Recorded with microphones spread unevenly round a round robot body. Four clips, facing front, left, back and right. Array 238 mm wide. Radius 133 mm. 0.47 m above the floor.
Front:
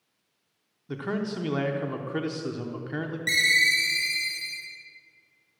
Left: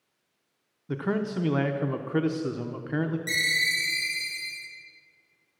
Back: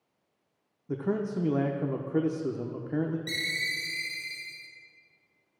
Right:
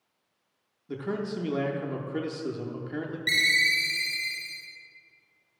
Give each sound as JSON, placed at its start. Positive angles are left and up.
{"t": 0.9, "sound": "a man speaking", "azimuth_deg": 145, "distance_m": 0.7}
{"t": 3.3, "sound": "a ringtone", "azimuth_deg": -50, "distance_m": 4.5}